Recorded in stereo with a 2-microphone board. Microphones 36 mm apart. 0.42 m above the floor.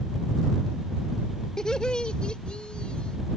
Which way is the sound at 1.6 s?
20° left (ahead or behind).